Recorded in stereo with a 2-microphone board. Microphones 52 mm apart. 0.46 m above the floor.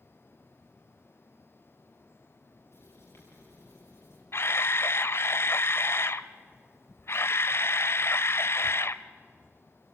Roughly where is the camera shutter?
Left.